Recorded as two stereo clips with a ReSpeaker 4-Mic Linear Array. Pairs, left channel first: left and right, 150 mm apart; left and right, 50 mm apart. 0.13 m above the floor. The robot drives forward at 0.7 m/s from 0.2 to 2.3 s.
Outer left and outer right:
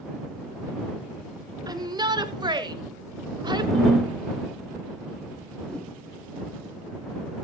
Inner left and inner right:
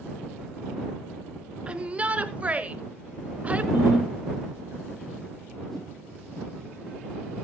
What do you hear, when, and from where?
1.7 s a shout: 25° right (ahead or behind), 1.4 m; by 3.6 s 30° right (ahead or behind), 1.2 m
3.7 s a ringtone: 30° right (ahead or behind), 3.5 m
5.7 s a whoosh: 5° left (ahead or behind), 5 m